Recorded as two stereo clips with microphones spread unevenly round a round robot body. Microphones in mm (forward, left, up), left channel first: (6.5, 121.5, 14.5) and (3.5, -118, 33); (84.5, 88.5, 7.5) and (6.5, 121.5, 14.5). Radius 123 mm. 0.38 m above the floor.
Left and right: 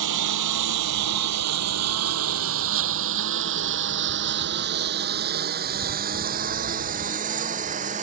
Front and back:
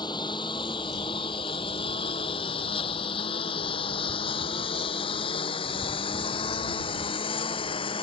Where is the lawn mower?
90° right; by 8.0 s 30° right.